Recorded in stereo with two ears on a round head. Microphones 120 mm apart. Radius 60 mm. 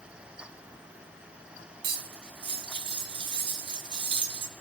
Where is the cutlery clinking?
40° right (ahead or behind), 0.9 m.